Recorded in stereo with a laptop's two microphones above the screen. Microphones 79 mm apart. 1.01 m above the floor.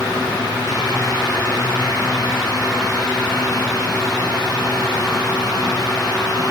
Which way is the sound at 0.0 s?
65° left (ahead or behind).